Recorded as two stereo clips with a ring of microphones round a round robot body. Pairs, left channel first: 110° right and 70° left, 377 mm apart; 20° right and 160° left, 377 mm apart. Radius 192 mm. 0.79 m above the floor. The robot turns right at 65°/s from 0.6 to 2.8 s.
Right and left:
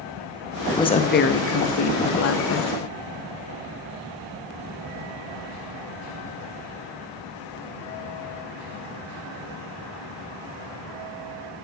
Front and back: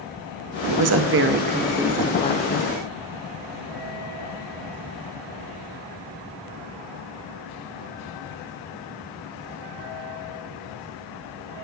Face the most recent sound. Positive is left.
turn(degrees=-55)